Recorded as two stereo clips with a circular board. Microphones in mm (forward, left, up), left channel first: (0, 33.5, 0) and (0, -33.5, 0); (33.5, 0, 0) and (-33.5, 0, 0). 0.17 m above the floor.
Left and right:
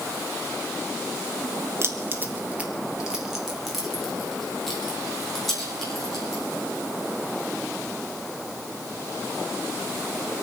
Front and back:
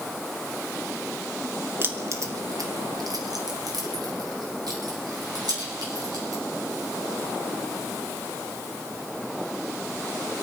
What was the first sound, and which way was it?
Keys jangling, 130° right.